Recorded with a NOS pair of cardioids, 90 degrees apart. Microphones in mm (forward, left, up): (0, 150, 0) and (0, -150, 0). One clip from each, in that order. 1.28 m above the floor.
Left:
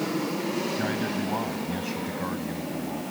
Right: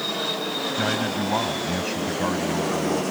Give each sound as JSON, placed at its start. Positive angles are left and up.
{"t": 0.8, "sound": "a man speaking", "azimuth_deg": -40}